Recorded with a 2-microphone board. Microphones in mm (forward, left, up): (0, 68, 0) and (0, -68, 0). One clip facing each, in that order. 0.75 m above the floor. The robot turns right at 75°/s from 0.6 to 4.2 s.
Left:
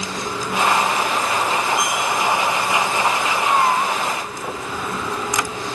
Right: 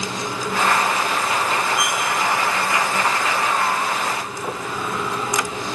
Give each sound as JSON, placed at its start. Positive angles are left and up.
{"t": 1.8, "sound": "cutlery clinking", "side_deg": -25, "distance_m": 7.0}
{"t": 3.3, "sound": "a cat meowing", "azimuth_deg": 100, "distance_m": 0.9}